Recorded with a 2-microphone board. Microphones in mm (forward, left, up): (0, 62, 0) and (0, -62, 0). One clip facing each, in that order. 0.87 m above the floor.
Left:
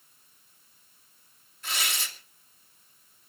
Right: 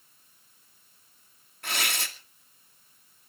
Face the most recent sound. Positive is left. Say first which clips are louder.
# right 2 dB
turn(degrees=-65)  # may be behind; listen again after turning